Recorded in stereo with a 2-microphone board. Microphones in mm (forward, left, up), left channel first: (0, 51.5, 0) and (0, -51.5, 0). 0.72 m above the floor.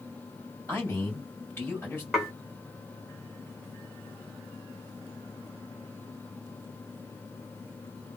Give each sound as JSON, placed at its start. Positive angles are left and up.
{"t": 0.7, "sound": "a man speaking", "side_deg": 15, "distance_m": 1.9}
{"t": 2.1, "sound": "dishes clattering", "side_deg": 0, "distance_m": 1.4}